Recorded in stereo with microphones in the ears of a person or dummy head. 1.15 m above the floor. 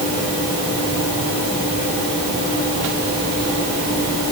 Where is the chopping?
No chopping in this recording.